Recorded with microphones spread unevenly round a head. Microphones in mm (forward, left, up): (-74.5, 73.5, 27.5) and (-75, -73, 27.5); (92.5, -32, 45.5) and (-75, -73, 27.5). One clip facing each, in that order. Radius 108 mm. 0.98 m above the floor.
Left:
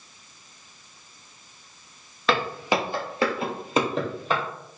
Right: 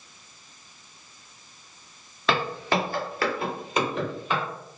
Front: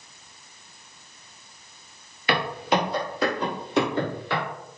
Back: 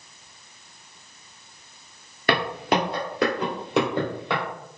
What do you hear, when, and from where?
2.3 s footsteps: straight behind, 1.0 m; by 4.4 s 140° left, 2 m